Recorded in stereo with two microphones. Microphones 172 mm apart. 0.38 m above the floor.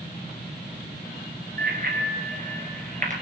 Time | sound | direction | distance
1.6 | a bicycle bell | 65° right (ahead or behind) | 4 m